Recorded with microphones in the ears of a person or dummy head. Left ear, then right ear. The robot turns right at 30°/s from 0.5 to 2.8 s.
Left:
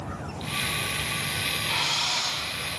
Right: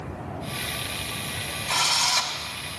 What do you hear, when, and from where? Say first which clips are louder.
1.7 s a drill: right 6 dB; 35° right (ahead or behind), 4 m; by 2.4 s 55° right (ahead or behind), 4 m